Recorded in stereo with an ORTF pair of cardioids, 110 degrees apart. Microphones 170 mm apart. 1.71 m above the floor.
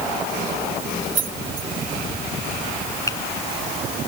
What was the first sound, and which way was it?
Keys jangling, 50° right.